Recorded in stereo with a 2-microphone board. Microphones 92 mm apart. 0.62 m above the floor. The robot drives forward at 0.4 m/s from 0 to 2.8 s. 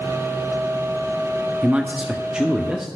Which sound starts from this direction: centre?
A man speaking, at 1.6 s.